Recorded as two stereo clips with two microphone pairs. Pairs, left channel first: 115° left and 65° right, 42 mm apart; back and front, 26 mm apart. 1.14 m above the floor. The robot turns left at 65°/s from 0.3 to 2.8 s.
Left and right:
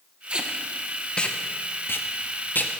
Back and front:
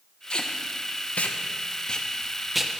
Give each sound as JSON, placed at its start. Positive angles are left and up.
{"t": 0.3, "sound": "tape being pulled", "azimuth_deg": -130, "distance_m": 0.6}